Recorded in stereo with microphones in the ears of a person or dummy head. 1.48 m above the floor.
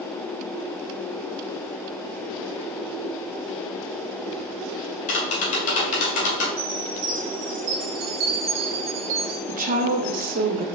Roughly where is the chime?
Right.